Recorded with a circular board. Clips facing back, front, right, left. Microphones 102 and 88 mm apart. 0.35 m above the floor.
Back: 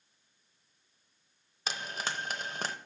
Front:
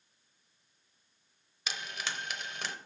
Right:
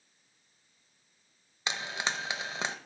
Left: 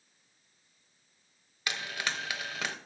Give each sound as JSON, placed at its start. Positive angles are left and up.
{"t": 1.7, "sound": "frying", "azimuth_deg": -145, "distance_m": 0.7}